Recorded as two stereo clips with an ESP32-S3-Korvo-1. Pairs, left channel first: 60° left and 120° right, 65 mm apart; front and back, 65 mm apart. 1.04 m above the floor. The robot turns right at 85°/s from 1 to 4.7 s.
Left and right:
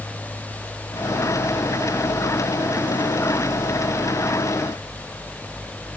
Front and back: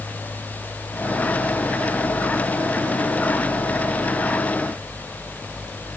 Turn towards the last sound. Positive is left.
No sound to turn to.